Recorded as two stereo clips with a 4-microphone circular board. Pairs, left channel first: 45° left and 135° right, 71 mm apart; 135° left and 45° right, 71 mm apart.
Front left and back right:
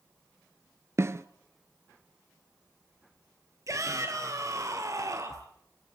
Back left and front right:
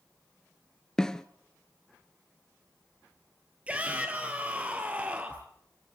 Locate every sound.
1.0 s a snare drum: 150° right, 0.7 m
3.7 s a shout: 110° right, 1.8 m